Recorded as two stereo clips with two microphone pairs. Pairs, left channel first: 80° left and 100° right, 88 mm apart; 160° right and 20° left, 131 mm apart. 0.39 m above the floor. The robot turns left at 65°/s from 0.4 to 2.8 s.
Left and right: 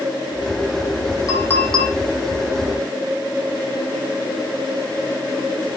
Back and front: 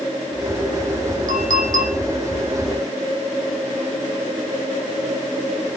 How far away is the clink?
About 9.5 m.